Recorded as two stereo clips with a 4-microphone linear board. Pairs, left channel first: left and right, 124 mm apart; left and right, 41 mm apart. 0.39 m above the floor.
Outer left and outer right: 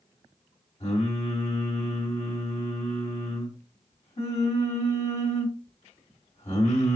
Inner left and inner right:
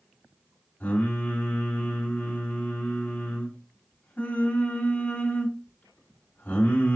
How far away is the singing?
About 2.5 m.